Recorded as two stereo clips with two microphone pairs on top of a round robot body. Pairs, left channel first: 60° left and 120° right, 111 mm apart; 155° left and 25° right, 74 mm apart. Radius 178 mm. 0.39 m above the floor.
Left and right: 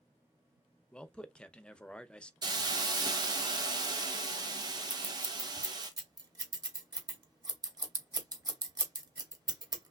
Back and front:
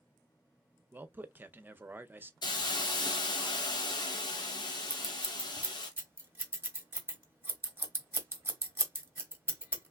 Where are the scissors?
75° right, 1.2 m.